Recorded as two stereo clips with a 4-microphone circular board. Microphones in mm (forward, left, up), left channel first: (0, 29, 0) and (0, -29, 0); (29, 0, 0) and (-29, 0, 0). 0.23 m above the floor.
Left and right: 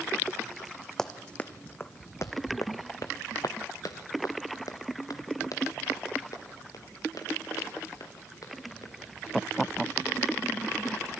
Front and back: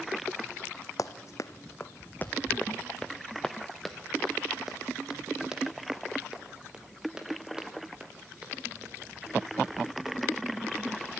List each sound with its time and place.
1.0 s running footsteps: 10° left, 0.8 m; by 11.0 s 110° left, 5 m